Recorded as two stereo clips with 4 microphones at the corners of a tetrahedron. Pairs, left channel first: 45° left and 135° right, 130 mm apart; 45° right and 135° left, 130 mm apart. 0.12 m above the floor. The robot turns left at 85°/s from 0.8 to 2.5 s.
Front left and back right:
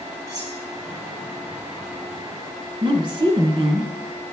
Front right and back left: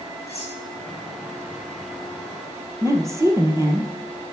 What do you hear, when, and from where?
0.3 s cutlery clinking: 75° right, 3 m
2.8 s a woman speaking: 170° right, 1.7 m